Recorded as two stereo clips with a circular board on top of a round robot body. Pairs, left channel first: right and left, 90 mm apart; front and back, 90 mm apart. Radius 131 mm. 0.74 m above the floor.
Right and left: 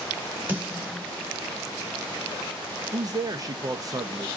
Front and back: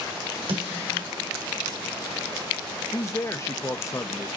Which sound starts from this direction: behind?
A snare drum, at 0.5 s.